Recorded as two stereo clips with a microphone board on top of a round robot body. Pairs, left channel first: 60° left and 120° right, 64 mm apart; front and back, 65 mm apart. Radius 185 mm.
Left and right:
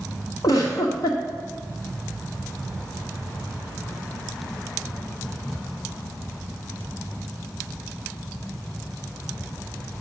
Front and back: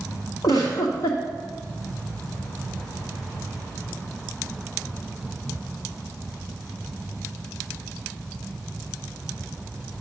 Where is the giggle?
30° left, 0.8 m.